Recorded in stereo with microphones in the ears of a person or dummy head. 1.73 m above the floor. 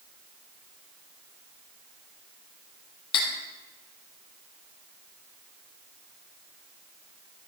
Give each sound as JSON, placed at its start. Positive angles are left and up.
{"t": 3.1, "sound": "cutlery clinking", "side_deg": 30, "distance_m": 2.5}